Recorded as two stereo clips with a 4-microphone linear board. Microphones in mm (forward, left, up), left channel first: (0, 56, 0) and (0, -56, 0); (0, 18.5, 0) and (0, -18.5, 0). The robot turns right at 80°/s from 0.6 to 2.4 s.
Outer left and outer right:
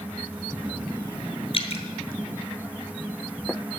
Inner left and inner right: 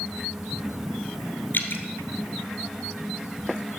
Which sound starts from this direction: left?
Dripping, at 1.5 s.